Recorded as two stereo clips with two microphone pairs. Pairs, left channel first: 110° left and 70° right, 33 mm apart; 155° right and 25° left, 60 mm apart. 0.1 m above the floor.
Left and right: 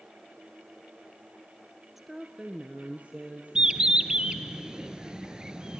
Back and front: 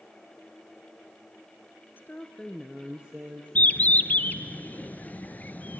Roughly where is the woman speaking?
Behind right.